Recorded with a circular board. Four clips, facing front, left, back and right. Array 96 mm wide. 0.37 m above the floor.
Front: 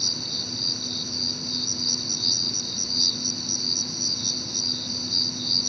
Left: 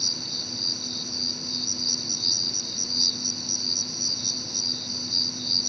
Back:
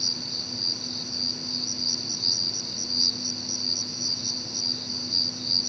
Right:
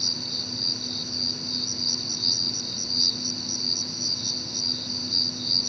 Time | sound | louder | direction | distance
0.0 | an insect | right 2 dB, front 2 dB | 5° left | ?